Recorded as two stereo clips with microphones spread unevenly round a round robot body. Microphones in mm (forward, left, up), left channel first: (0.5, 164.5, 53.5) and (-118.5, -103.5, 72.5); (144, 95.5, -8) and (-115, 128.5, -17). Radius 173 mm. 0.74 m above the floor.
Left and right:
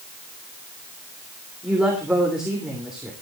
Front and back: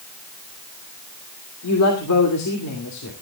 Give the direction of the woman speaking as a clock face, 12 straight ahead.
1 o'clock.